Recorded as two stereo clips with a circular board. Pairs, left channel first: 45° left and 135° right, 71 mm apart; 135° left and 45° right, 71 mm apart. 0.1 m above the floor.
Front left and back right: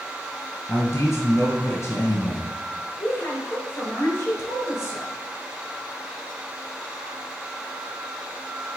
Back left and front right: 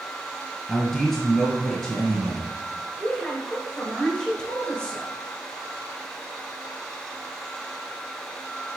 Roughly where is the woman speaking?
Ahead left.